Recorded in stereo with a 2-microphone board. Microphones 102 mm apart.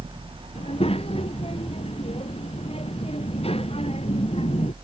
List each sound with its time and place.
0.6 s a child speaking: 70° left (ahead or behind); by 4.8 s 75° left (ahead or behind)